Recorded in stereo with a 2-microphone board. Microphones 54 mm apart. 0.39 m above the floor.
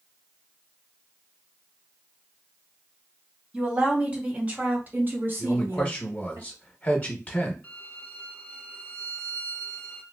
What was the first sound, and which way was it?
A woman speaking, 15° right (ahead or behind).